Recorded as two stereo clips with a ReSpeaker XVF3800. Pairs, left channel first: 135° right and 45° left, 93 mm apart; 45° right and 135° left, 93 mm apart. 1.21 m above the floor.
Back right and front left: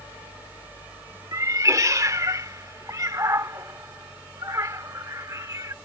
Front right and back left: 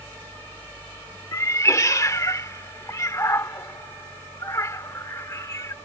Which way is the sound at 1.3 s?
Straight ahead.